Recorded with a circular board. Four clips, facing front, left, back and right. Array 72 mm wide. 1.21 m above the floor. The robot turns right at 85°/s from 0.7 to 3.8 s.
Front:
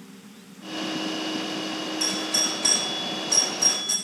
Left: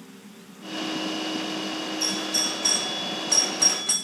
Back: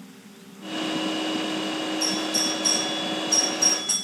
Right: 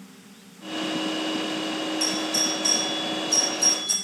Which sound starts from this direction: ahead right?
A doorbell, at 2.0 s.